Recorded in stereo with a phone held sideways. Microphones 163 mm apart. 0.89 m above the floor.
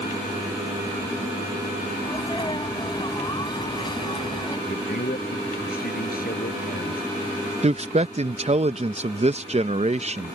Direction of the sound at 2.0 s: 30° left (ahead or behind).